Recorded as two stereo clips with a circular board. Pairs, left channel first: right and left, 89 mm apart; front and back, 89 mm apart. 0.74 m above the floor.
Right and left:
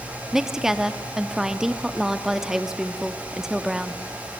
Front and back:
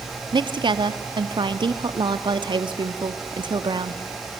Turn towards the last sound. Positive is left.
turn(degrees=175)